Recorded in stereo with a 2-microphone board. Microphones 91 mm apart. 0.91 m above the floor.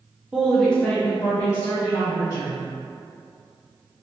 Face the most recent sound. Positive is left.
turn(degrees=45)  # may be behind; listen again after turning